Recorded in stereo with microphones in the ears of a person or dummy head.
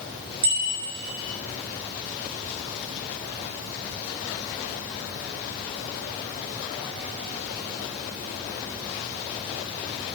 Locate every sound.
0.4 s a bicycle bell: 75° right (ahead or behind), 6 m